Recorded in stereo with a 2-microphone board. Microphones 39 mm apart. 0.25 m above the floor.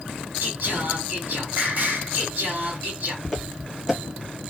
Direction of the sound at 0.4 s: 55° right (ahead or behind).